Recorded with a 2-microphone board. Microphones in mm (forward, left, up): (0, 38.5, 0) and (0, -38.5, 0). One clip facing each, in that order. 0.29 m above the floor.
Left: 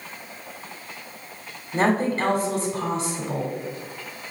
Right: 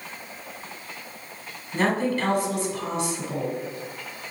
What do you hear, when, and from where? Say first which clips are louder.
1.7 s a woman speaking: left 2 dB; 40° left (ahead or behind), 1.5 m